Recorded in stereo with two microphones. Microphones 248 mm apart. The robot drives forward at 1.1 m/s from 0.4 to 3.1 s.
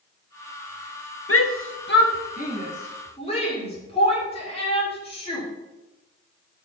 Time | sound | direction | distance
1.3 | a shout | 65° left (ahead or behind) | 1.0 m